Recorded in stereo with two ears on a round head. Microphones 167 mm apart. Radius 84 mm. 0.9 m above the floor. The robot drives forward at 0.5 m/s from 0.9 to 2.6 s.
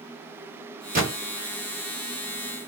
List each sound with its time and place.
0.9 s a gunshot: 45° right (ahead or behind), 1.6 m